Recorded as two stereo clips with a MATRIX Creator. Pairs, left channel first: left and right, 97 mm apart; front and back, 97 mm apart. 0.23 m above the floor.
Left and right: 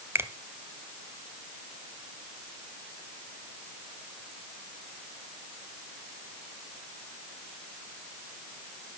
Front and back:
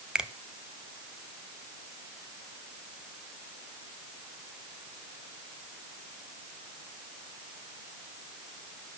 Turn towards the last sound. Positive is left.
turn(degrees=-110)